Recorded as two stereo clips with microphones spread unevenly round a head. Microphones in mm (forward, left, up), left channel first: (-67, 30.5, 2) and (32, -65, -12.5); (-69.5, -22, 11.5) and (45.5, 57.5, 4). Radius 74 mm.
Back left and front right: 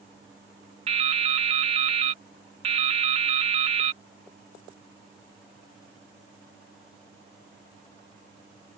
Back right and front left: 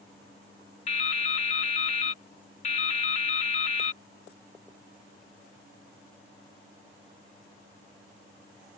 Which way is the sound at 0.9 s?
90° right.